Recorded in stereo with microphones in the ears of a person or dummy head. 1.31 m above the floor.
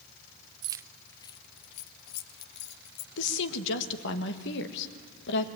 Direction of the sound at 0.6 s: 25° right (ahead or behind).